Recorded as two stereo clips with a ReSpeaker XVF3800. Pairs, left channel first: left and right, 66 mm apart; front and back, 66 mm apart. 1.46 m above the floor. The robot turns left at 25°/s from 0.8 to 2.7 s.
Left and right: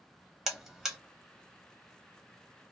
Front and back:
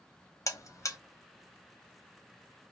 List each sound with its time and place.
0.5 s a buzzer: 5° right, 0.8 m; by 1.0 s 10° right, 0.8 m